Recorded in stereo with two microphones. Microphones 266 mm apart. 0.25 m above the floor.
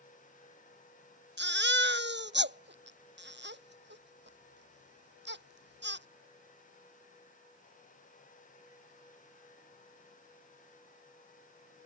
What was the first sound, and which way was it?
A baby crying, 40° right (ahead or behind).